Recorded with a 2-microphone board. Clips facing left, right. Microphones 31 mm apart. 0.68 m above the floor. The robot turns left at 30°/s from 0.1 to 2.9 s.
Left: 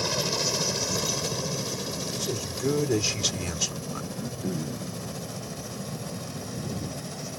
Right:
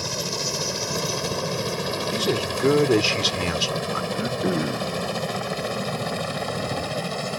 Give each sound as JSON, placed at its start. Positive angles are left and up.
{"t": 0.0, "sound": "a helicopter", "side_deg": 10}
{"t": 2.1, "sound": "a man speaking", "side_deg": -60}
{"t": 4.1, "sound": "throat clearing", "side_deg": -50}